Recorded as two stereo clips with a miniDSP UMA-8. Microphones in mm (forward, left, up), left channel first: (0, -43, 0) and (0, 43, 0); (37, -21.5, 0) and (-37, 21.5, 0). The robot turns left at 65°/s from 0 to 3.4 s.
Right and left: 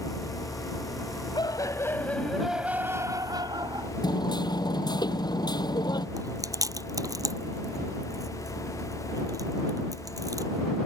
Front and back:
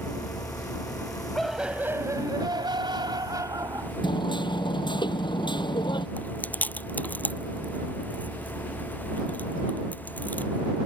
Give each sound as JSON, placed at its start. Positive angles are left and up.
{"t": 1.4, "sound": "laughter", "azimuth_deg": -115}
{"t": 4.0, "sound": "hammering", "azimuth_deg": -55}
{"t": 6.2, "sound": "chewing", "azimuth_deg": 40}